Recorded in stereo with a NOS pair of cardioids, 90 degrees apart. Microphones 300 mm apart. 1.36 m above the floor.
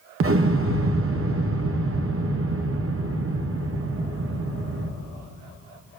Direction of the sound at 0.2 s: 50° right.